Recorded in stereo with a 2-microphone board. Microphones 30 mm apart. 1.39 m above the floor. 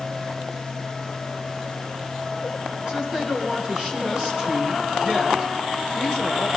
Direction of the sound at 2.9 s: 30° right (ahead or behind).